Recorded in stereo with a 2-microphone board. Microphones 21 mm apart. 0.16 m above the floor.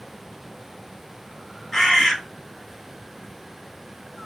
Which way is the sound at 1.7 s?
15° left (ahead or behind).